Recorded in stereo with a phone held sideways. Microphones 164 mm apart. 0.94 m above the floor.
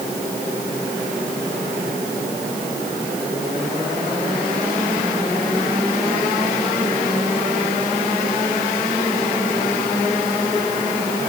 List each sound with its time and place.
Only background noise.